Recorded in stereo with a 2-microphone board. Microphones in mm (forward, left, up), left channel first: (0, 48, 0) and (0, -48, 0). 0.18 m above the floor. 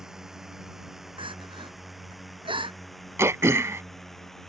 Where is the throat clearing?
30° right (ahead or behind).